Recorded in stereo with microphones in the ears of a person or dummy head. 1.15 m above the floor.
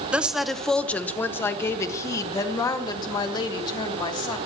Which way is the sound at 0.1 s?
5° right (ahead or behind).